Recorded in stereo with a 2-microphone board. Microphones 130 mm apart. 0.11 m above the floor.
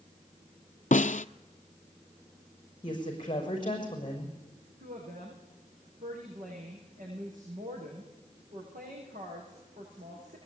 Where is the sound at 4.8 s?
80° right, 8.5 m.